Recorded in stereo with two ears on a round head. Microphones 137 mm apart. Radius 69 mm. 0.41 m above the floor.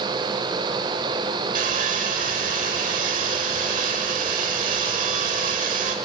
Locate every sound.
1.6 s sawing: 55° right (ahead or behind), 1.2 m